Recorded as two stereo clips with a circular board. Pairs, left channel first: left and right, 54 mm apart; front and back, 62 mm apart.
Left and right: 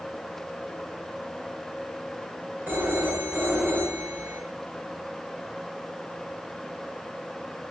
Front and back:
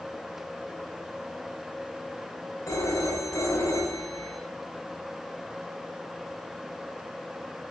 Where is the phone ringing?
35° right, 3 m.